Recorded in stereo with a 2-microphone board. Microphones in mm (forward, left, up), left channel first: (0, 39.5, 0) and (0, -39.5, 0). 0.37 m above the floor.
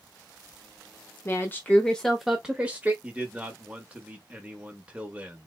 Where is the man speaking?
15° right (ahead or behind), 1.0 m.